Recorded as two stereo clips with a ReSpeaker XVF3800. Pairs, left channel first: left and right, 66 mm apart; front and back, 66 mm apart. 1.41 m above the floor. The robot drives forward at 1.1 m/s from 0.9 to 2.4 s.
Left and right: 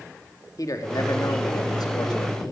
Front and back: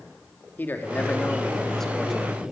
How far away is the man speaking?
About 2.5 m.